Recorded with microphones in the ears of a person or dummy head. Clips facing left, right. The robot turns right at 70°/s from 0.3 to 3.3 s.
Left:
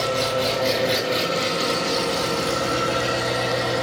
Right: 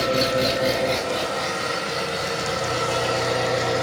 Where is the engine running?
30° right, 1.7 m; by 3.8 s straight behind, 1.7 m.